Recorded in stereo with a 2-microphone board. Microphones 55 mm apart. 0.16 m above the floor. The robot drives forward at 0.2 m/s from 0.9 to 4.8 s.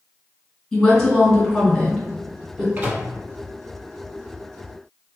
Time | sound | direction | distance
0.7 | a woman speaking | 10° left (ahead or behind) | 1.5 m
2.8 | a microwave | 35° right (ahead or behind) | 0.9 m